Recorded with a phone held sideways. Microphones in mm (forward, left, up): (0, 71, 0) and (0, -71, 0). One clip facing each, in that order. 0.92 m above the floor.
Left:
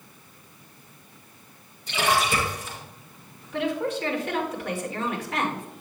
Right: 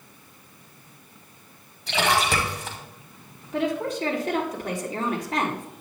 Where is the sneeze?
I don't hear a sneeze.